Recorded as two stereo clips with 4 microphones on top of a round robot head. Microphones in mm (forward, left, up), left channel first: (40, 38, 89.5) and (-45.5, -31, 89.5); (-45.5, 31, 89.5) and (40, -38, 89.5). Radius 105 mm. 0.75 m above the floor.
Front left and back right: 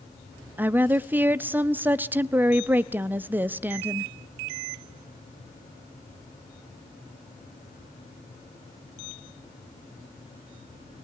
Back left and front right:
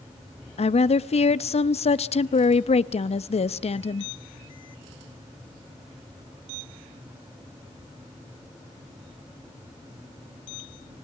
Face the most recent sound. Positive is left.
turn(degrees=145)